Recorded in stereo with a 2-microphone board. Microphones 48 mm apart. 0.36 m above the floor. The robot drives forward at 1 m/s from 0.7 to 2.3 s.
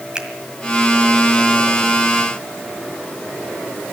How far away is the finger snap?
About 1.8 m.